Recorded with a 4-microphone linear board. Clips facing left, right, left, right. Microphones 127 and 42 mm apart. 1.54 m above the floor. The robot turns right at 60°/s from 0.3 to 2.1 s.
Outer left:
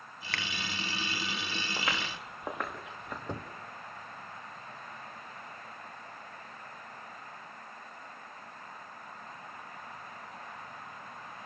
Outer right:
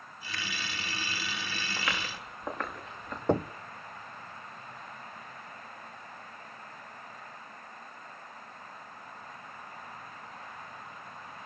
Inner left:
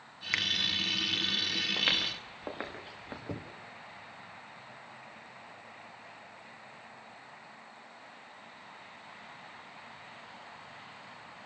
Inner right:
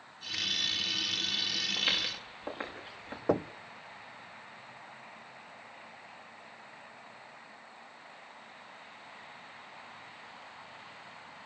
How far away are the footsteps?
About 8.5 m.